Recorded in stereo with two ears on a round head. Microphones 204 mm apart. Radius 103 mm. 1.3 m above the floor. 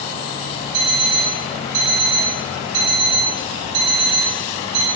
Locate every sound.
0.7 s an alarm clock: 75° right (ahead or behind), 2.0 m